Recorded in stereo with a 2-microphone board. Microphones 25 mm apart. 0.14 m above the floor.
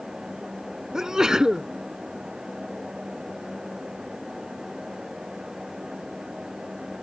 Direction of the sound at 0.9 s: 25° right (ahead or behind).